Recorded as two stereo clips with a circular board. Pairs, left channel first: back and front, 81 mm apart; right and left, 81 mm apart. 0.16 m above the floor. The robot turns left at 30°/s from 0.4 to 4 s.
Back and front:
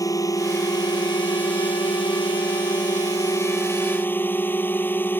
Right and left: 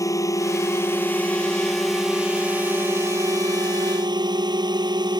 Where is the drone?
135° right; by 5.2 s 115° left.